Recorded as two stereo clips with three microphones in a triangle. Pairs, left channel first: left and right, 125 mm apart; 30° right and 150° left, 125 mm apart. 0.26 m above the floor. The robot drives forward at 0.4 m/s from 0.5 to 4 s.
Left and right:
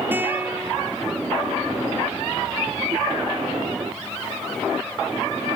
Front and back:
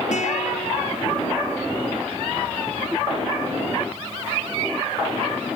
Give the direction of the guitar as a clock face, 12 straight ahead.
1 o'clock.